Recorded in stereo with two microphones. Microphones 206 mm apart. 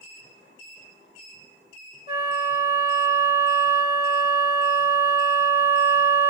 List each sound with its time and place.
2.1 s a flute: 55° left (ahead or behind), 1.3 m